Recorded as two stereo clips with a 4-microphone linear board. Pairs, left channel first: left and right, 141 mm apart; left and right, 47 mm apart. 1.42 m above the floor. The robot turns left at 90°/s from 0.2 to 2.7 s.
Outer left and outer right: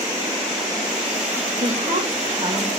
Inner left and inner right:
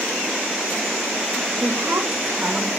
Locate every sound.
1.6 s a woman speaking: 65° right, 3.5 m; by 2.7 s 165° right, 3.5 m